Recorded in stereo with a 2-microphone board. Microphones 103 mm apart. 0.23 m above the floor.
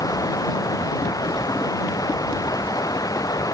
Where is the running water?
35° left (ahead or behind).